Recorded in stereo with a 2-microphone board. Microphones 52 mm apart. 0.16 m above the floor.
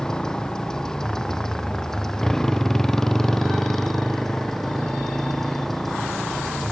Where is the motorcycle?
10° left (ahead or behind); by 6.7 s 5° left (ahead or behind).